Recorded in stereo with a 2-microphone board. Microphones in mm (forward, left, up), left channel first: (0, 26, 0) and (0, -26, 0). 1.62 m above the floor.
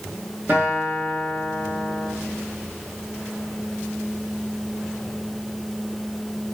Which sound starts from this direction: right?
A guitar, at 0.5 s.